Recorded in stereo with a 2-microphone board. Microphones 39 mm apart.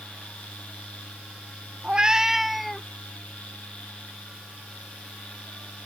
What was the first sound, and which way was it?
A cat meowing, 30° right (ahead or behind).